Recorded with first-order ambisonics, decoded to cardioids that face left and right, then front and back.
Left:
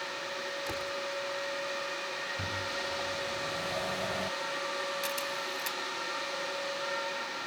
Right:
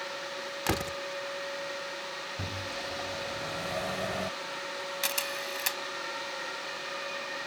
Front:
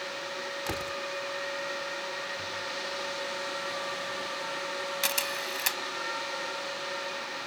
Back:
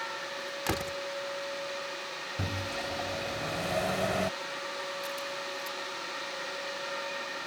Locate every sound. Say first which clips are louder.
0.7 s a door slam: right 3 dB, back 3 dB; 110° right
2.4 s a microwave: left 2 dB, front 1 dB; 170° right
5.0 s a camera shutter: right 1 dB, front 5 dB; 25° right